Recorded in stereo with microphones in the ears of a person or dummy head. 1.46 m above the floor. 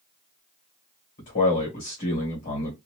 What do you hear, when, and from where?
1.2 s a man speaking: 40° left (ahead or behind), 1.5 m